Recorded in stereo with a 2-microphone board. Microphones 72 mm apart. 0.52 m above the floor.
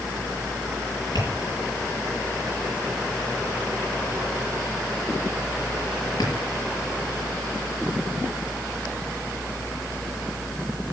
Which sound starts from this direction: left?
Tapping, at 1.1 s.